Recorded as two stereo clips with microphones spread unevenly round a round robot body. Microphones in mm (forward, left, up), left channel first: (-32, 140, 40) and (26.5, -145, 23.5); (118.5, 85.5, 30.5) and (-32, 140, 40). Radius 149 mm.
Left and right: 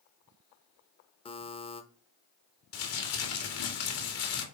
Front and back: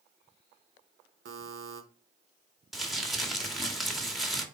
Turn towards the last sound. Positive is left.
turn(degrees=70)